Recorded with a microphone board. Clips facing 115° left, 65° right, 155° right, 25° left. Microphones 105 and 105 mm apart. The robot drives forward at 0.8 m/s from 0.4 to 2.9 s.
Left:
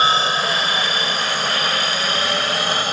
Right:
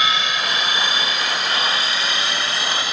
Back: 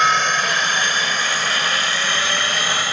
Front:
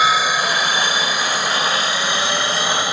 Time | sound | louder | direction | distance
0.0 | a helicopter | left 4 dB, front 1 dB | 100° left | ?